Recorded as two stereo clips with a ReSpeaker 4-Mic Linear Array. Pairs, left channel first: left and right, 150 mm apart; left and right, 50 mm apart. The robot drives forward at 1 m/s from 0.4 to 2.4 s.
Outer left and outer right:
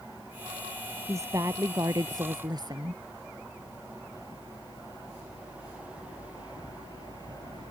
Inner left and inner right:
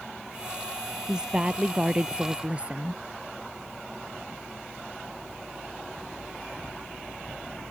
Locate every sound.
1.1 s a woman speaking: 20° right (ahead or behind); by 3.0 s 30° right (ahead or behind)